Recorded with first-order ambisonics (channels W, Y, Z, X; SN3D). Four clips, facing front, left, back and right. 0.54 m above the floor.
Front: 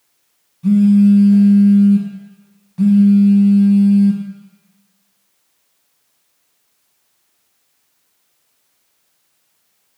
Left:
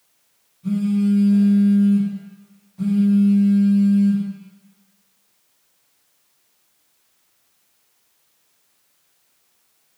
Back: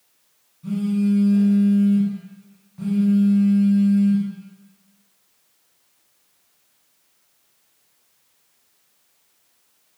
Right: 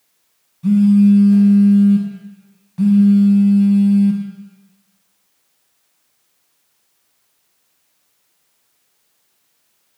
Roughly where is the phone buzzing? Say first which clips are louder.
Right 8 dB, front 11 dB; ahead right.